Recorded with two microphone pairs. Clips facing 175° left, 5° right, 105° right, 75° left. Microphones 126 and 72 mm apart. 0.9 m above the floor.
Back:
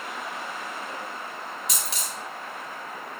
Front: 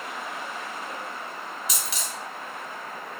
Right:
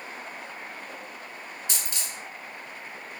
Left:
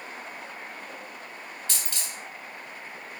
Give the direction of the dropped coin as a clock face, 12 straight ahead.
6 o'clock.